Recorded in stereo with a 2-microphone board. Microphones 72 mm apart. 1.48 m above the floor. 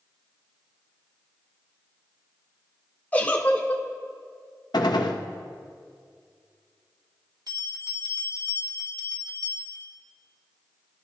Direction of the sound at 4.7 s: 75° left (ahead or behind).